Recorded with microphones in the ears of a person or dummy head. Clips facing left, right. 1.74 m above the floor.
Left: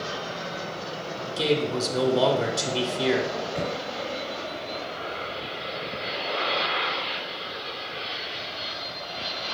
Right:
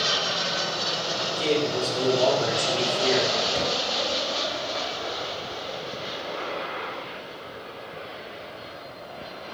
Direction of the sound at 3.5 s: 40° right (ahead or behind).